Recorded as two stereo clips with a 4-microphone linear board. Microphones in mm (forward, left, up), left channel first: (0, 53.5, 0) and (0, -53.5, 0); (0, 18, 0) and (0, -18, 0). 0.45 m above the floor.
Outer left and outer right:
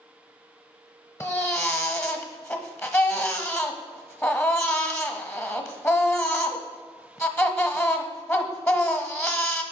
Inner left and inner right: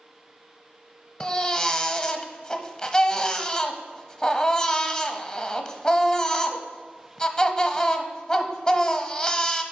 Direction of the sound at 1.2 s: 25° left (ahead or behind).